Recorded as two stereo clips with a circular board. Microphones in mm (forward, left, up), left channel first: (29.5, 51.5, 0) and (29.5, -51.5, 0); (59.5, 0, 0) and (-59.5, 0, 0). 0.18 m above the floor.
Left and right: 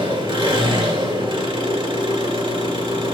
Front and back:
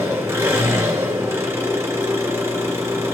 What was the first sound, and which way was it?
An engine running, 115° right.